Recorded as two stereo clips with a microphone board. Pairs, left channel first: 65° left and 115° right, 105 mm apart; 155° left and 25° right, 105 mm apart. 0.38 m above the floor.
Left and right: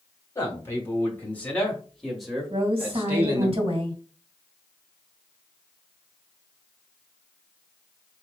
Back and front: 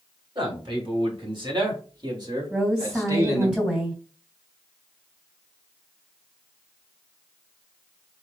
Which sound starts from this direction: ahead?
A man speaking, at 0.3 s.